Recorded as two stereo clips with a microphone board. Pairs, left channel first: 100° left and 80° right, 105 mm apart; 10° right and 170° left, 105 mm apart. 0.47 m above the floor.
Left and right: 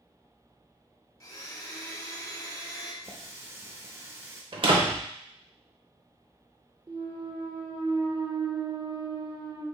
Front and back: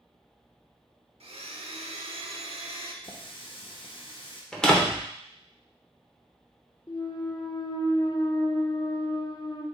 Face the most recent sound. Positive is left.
turn(degrees=-50)